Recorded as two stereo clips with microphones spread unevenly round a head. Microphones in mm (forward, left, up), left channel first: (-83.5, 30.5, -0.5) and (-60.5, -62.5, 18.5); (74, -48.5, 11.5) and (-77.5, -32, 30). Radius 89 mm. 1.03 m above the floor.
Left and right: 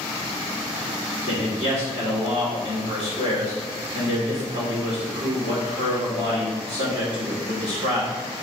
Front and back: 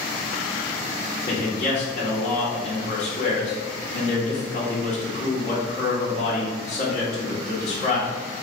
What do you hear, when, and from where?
1.3 s a man speaking: 45° right, 2 m